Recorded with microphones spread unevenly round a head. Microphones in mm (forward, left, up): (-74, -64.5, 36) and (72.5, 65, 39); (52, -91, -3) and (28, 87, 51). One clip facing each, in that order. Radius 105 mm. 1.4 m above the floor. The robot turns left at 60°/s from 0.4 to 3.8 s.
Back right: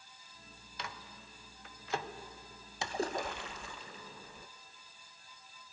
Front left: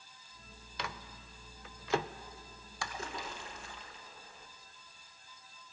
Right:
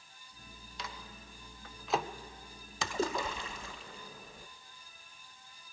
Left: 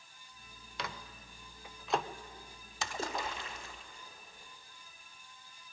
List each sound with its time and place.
0.8 s a microwave: 75° left, 0.7 m; by 2.1 s straight ahead, 0.7 m
2.8 s a splash: 70° right, 0.8 m; by 4.5 s 130° right, 0.8 m